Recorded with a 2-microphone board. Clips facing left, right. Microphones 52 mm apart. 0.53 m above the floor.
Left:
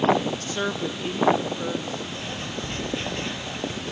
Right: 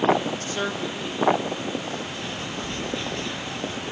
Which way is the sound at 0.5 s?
15° right (ahead or behind).